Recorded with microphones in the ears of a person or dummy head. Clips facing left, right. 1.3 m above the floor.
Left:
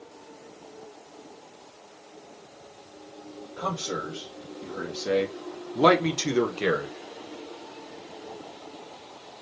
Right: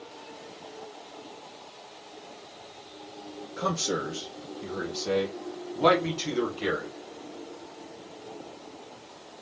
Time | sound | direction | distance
3.6 | a man speaking | 35° right (ahead or behind) | 1.0 m